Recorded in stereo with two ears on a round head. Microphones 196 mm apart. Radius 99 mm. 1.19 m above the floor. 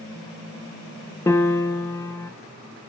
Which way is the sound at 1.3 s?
10° left (ahead or behind).